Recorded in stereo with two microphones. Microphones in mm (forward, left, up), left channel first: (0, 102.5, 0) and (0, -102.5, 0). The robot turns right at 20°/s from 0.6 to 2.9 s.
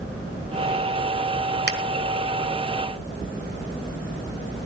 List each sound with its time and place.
1.7 s a finger snap: 50° right (ahead or behind), 1.7 m